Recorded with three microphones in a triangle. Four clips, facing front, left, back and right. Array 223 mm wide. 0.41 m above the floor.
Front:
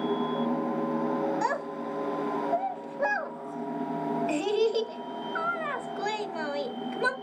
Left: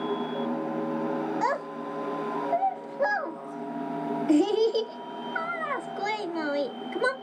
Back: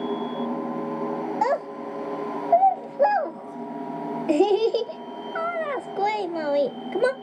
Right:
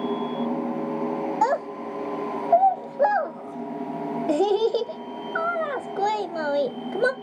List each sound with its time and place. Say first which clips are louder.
1.4 s a child speaking: right 5 dB, back 5 dB; 140° right, 1.2 m